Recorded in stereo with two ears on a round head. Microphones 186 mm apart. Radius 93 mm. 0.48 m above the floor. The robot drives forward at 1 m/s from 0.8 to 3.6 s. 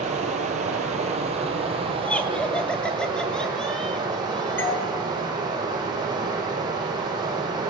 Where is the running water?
35° right (ahead or behind), 4 m; by 7.7 s 20° right (ahead or behind), 6.5 m.